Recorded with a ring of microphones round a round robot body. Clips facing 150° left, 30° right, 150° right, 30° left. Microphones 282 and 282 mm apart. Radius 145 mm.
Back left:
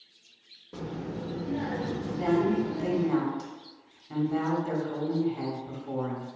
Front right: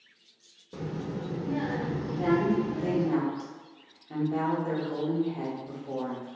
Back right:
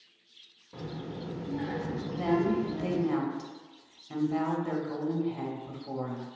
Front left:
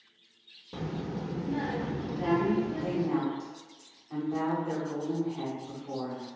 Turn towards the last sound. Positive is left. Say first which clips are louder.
# even, even
turn(degrees=-140)